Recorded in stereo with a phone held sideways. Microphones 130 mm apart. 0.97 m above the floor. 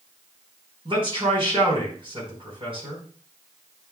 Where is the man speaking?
40° right (ahead or behind), 4 m.